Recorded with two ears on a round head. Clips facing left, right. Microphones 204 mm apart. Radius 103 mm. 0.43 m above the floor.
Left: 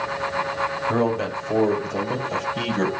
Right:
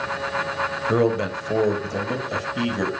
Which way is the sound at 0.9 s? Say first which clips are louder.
Right 3 dB; 30° right (ahead or behind).